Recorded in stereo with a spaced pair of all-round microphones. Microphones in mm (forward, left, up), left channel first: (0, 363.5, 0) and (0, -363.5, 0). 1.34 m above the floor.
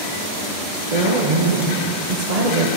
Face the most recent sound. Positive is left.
turn(degrees=-60)  # may be behind; listen again after turning